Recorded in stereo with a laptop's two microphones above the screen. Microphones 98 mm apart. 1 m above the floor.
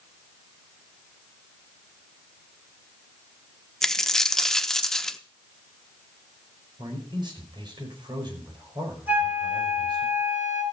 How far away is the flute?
About 3 m.